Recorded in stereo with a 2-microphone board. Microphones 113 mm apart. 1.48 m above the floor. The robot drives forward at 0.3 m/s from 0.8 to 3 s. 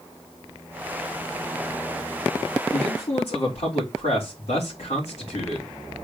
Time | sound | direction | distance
2.7 | a man speaking | 75° left (ahead or behind) | 3 m